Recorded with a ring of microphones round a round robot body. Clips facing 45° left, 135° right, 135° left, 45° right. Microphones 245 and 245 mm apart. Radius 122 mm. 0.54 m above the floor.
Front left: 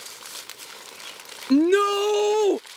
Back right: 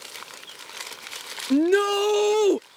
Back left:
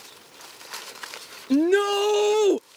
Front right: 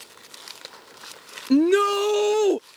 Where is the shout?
Straight ahead; by 2.6 s 165° right.